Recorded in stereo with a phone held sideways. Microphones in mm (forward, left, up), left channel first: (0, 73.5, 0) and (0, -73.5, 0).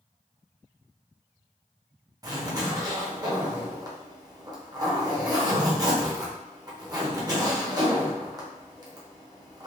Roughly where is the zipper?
Right.